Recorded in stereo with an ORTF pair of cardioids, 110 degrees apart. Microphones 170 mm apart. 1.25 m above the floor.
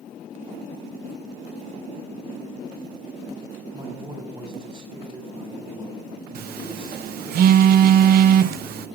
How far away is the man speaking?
About 7 m.